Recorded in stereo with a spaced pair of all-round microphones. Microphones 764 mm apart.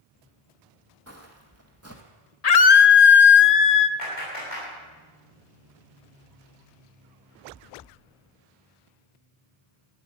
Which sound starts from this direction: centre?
Footsteps, at 1.1 s.